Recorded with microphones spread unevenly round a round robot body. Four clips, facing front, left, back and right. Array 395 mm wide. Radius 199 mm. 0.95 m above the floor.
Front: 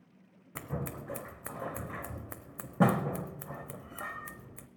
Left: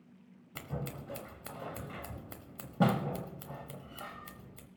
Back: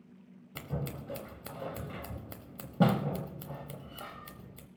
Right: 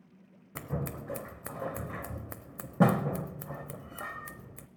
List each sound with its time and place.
0.6 s scissors: 25° right, 0.7 m